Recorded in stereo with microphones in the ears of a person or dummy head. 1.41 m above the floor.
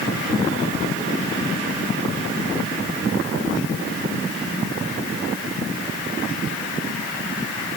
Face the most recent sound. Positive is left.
No sound to turn to.